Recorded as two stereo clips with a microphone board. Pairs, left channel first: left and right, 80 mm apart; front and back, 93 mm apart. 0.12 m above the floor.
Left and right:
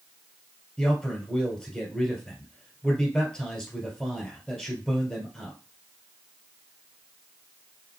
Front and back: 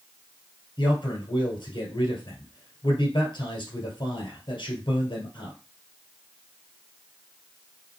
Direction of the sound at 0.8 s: 10° left.